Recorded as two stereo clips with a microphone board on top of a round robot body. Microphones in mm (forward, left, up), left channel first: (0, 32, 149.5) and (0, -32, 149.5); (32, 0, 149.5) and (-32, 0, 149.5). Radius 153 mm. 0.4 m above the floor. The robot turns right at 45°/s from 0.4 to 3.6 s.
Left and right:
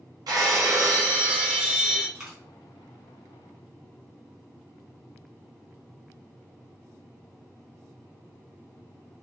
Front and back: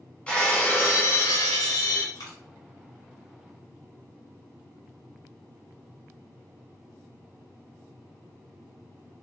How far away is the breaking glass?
About 1.0 m.